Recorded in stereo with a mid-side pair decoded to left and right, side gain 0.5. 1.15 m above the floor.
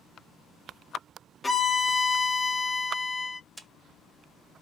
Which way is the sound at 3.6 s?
10° right.